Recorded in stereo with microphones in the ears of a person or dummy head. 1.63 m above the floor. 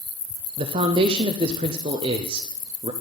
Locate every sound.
0.6 s a man speaking: 35° right (ahead or behind), 0.7 m